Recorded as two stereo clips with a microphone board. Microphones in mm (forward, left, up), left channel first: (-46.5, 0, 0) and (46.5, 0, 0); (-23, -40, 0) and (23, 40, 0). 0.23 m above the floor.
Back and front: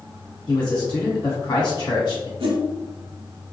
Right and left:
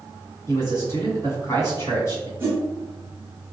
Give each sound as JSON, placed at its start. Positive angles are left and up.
{"t": 0.5, "sound": "a man speaking", "azimuth_deg": -170, "distance_m": 1.9}
{"t": 2.4, "sound": "a whoosh", "azimuth_deg": 0, "distance_m": 1.3}